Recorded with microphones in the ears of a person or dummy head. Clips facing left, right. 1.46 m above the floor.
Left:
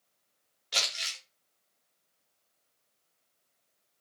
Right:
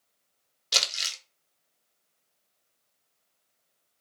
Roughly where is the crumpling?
Right.